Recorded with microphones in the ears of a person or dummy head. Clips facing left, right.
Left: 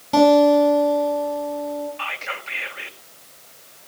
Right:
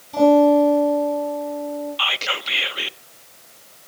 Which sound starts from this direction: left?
A guitar, at 0.1 s.